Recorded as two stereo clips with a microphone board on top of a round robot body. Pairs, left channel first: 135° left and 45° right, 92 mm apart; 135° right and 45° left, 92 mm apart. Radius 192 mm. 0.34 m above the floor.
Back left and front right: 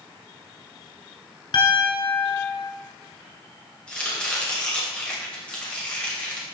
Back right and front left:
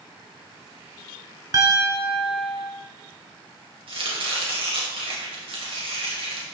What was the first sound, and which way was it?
A piano, 100° left.